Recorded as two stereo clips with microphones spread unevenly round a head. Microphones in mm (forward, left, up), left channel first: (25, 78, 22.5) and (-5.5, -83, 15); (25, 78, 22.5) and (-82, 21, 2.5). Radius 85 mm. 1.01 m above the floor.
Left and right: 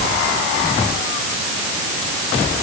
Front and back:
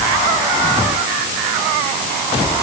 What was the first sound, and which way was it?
Only background noise.